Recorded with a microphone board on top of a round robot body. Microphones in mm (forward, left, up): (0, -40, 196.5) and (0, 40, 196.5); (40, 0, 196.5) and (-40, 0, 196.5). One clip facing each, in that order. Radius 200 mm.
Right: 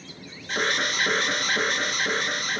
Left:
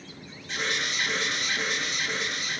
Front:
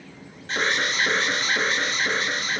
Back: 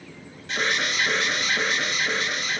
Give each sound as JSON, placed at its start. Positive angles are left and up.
{"t": 0.5, "sound": "an alarm", "azimuth_deg": -50, "distance_m": 4.0}